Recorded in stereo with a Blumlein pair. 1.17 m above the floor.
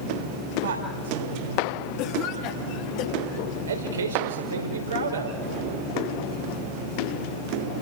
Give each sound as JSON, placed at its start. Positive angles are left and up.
{"t": 0.6, "sound": "a woman speaking", "azimuth_deg": -60, "distance_m": 7.0}
{"t": 2.0, "sound": "a cough", "azimuth_deg": 45, "distance_m": 3.0}
{"t": 3.7, "sound": "a man speaking", "azimuth_deg": -70, "distance_m": 4.5}